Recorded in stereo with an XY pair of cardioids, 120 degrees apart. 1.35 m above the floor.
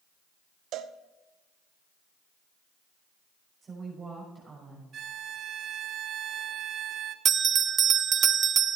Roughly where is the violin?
Ahead right.